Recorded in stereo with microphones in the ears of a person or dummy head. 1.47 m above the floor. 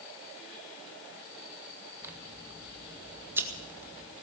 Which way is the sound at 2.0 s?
20° right (ahead or behind).